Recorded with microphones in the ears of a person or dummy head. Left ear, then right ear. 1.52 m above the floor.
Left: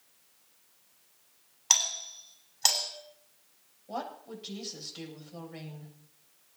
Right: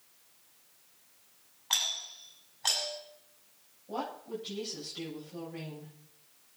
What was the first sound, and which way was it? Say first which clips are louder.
A doorbell: left 4 dB; 75° left (ahead or behind).